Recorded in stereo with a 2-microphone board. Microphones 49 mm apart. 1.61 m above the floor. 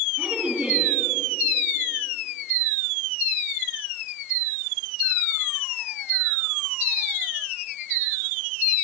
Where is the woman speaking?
25° right (ahead or behind), 4 m.